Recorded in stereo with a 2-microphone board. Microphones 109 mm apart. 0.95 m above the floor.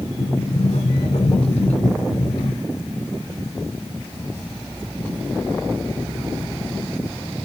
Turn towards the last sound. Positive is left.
turn(degrees=80)